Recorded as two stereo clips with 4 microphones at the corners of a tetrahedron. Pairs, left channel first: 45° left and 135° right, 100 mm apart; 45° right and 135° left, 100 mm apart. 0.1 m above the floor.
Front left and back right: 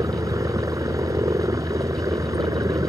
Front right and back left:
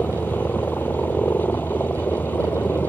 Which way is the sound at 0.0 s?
105° right.